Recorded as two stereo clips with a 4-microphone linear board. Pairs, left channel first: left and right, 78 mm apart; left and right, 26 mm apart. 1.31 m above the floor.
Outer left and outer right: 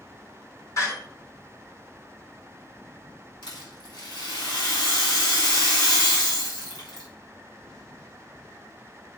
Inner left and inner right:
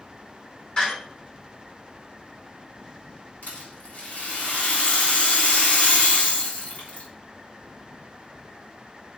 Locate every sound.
0.8 s a door slam: 45° left (ahead or behind), 3 m
3.4 s a rattle: 85° left, 3.5 m